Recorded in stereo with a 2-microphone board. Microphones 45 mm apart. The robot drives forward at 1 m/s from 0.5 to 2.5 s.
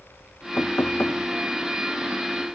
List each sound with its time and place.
0.6 s knocking: 85° left; by 1.2 s 80° left